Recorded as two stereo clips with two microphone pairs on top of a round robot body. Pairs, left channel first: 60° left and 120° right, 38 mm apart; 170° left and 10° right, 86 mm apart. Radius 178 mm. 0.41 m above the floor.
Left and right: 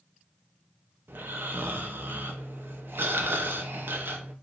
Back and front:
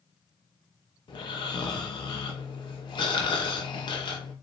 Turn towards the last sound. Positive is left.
turn(degrees=-150)